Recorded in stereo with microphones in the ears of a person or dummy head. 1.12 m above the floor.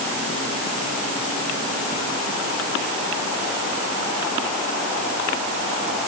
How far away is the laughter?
I don't hear laughter.